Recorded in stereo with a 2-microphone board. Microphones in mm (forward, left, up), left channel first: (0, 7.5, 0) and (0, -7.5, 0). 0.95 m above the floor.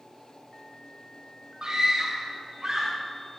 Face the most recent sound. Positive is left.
turn(degrees=-45)  # may be behind; listen again after turning